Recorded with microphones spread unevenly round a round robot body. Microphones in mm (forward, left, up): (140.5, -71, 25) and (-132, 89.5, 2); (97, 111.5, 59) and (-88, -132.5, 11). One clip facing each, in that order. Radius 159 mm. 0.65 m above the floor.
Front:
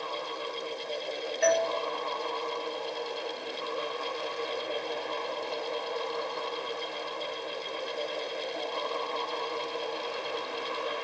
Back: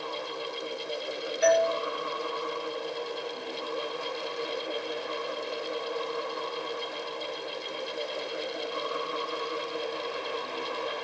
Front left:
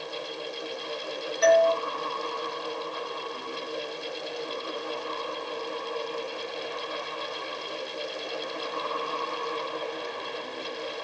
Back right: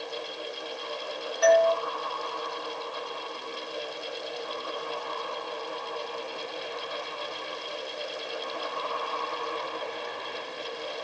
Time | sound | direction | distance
1.4 | a doorbell | 85° left | 1.0 m